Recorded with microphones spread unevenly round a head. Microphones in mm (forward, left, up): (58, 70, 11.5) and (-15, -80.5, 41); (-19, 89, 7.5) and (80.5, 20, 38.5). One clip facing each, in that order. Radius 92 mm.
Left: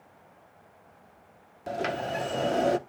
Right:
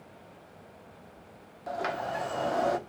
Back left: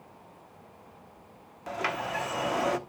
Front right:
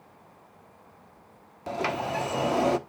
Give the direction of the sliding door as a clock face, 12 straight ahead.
11 o'clock.